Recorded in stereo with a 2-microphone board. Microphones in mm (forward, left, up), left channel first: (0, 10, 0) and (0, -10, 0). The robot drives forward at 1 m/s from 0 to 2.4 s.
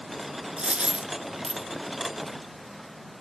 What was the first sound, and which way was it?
A dropped coin, 75° right (ahead or behind).